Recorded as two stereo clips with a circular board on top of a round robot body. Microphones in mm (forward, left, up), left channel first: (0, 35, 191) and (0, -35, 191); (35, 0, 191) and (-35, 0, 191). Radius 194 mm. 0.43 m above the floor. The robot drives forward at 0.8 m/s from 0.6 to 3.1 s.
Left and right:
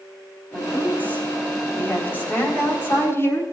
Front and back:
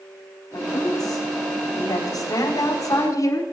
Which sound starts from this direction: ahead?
A woman speaking, at 0.5 s.